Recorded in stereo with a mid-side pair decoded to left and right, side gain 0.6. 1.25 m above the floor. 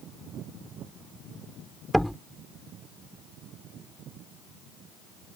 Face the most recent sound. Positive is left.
turn(degrees=0)